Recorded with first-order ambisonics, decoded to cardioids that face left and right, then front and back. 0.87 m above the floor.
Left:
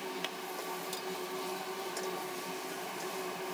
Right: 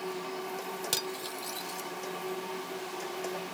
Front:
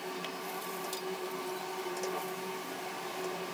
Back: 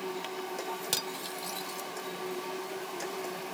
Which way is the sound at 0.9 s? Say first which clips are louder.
Right 4 dB, back 3 dB; 135° right.